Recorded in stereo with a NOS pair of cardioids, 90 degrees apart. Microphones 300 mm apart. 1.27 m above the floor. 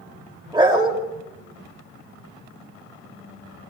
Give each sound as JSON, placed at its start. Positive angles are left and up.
{"t": 0.5, "sound": "a dog barking", "azimuth_deg": -15, "distance_m": 2.5}